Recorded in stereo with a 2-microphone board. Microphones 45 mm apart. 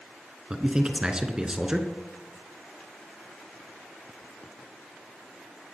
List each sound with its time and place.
0.5 s a man speaking: 20° right (ahead or behind), 1.2 m